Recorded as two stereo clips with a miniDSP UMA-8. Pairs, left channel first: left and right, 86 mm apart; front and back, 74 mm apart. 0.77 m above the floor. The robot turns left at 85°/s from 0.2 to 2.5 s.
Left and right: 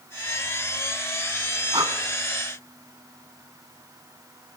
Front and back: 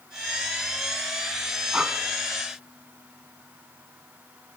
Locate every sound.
1.7 s breathing: 95° right, 1.0 m; by 1.9 s 110° right, 1.0 m